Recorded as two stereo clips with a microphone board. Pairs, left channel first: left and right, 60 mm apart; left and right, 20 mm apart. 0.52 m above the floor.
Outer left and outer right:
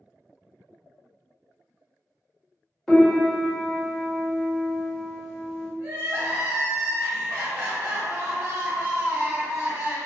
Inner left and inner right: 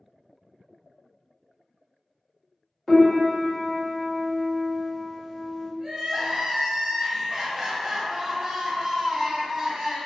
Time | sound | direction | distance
2.9 | a piano | 10° left (ahead or behind) | 0.9 m
5.8 | crying | 45° right (ahead or behind) | 0.9 m